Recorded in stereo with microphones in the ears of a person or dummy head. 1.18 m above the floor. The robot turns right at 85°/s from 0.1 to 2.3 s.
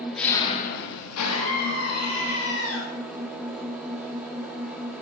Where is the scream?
20° left, 1.6 m; by 2.8 s 115° left, 1.6 m.